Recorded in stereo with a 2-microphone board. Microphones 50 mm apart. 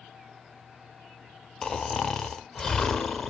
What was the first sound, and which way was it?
Snoring, 10° left (ahead or behind).